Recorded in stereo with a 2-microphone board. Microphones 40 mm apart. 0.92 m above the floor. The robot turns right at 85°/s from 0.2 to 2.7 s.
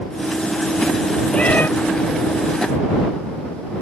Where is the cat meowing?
25° left; by 1.7 s 55° left.